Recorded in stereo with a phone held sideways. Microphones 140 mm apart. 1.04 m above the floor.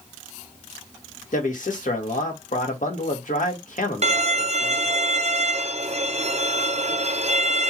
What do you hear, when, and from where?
1.3 s a man speaking: 70° left (ahead or behind), 1.6 m
4.0 s a violin: 50° right (ahead or behind), 0.5 m